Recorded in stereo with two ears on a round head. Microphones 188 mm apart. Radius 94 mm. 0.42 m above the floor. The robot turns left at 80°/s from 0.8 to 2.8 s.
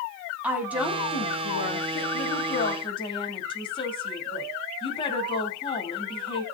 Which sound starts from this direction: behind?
A woman speaking, at 0.4 s.